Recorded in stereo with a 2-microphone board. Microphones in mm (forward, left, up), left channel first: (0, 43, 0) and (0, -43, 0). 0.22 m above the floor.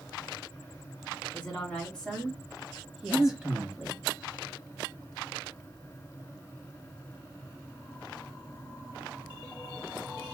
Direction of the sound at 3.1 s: 50° left (ahead or behind).